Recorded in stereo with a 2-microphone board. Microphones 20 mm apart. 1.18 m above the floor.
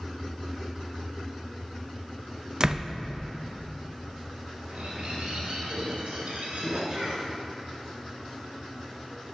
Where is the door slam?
30° right (ahead or behind), 0.5 m.